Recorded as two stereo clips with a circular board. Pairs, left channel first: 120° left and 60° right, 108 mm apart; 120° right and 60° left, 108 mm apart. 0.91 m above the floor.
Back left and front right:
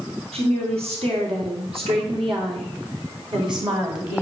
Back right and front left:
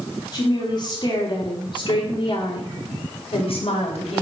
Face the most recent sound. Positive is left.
turn(degrees=-110)